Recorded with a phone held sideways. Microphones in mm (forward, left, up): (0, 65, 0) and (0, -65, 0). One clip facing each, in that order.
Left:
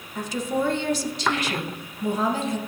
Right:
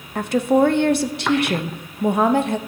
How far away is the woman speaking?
About 0.6 m.